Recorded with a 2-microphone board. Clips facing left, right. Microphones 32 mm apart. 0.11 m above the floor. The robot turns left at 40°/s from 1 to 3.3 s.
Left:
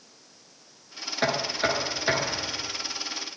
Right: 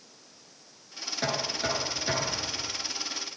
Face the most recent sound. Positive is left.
turn(degrees=30)